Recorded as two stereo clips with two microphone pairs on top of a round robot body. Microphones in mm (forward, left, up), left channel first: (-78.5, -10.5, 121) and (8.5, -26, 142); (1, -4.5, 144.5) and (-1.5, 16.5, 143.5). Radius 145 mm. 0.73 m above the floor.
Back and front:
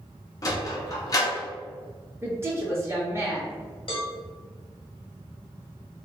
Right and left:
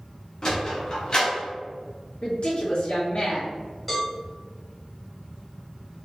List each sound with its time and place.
0.4 s a sliding door: 135° right, 0.6 m
2.2 s a woman speaking: 75° right, 1.4 m
3.9 s a cowbell: 170° right, 1.0 m